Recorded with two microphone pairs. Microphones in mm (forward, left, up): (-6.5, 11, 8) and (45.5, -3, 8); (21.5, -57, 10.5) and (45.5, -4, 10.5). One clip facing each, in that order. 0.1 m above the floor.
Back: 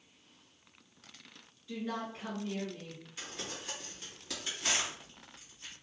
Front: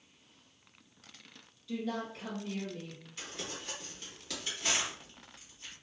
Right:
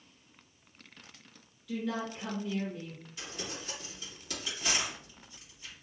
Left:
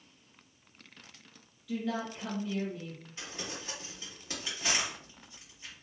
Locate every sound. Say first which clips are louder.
1.7 s a woman speaking: front 1 dB, even; 160° left, 1.2 m
3.2 s crumpling: front 1 dB, right 1 dB; 90° left, 1.9 m